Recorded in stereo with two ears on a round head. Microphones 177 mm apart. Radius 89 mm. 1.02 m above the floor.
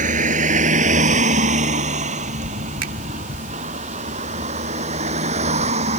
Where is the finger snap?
80° right.